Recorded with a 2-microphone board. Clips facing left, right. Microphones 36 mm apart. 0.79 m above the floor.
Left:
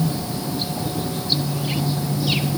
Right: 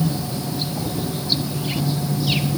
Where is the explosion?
No explosion in this recording.